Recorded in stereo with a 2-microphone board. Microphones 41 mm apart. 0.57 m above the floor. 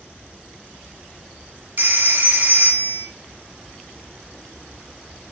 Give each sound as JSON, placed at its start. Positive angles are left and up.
{"t": 1.8, "sound": "a phone ringing", "side_deg": -50, "distance_m": 0.6}